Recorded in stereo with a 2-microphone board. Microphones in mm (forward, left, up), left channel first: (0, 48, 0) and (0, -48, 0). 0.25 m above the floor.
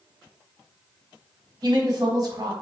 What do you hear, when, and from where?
1.6 s a woman speaking: 45° right (ahead or behind), 1.5 m